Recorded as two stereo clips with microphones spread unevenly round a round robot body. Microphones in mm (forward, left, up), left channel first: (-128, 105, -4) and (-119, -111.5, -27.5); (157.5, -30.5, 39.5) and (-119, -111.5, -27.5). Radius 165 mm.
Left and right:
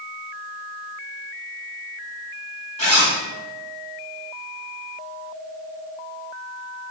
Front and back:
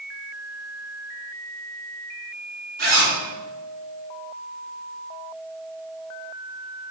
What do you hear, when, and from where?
2.8 s a zipper: 150° left, 2.0 m